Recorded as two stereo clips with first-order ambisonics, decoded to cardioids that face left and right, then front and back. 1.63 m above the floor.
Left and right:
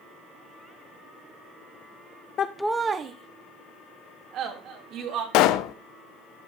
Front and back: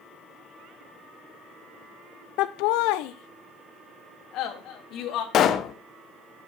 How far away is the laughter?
About 0.5 m.